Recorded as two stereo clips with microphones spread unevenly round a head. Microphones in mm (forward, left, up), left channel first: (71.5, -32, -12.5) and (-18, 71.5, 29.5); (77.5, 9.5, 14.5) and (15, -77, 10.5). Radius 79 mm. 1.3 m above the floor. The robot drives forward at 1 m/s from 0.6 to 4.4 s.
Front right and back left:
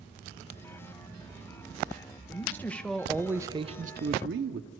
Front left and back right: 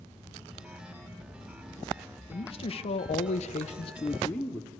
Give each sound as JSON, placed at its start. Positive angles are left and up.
{"t": 2.3, "sound": "a man speaking", "azimuth_deg": 20, "distance_m": 1.6}